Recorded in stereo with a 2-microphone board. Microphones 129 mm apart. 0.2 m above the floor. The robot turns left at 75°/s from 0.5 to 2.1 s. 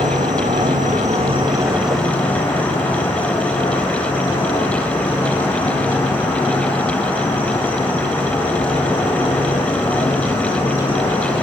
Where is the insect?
75° right, 8 m; by 11.4 s 165° left, 8 m.